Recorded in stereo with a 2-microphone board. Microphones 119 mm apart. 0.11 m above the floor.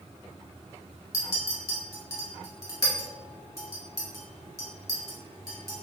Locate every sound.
1.1 s a clink: 25° left (ahead or behind), 1.5 m